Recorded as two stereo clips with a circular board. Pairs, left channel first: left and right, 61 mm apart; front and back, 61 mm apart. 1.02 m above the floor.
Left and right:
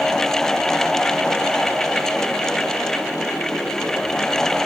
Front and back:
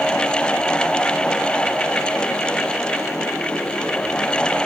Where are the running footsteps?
I don't hear running footsteps.